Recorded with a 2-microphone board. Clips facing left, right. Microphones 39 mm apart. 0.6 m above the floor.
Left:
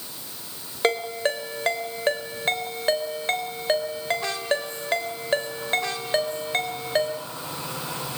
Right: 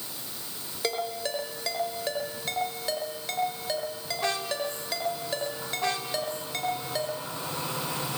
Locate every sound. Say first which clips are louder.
0.8 s a ringtone: left 7 dB; 50° left (ahead or behind), 3.5 m